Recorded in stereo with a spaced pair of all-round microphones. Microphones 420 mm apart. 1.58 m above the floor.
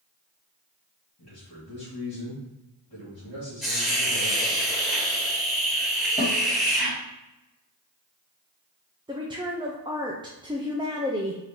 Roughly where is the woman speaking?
Centre.